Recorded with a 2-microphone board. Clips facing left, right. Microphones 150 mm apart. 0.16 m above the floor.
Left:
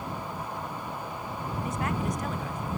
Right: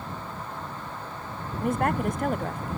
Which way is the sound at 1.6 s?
55° right (ahead or behind).